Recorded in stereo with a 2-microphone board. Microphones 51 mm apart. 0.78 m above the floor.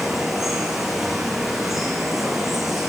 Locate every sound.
0.0 s running water: 5° right (ahead or behind), 5.5 m